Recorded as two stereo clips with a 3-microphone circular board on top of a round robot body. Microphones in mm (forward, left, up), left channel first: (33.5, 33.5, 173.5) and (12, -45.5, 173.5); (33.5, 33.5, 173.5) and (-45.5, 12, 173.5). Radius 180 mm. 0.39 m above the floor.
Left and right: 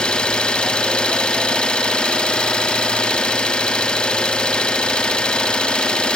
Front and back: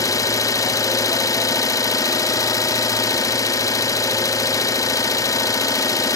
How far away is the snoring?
I don't hear snoring.